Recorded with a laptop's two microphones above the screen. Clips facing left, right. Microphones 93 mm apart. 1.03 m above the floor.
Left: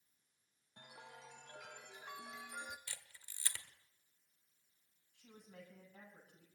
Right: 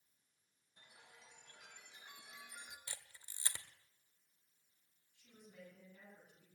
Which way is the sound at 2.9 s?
20° right (ahead or behind).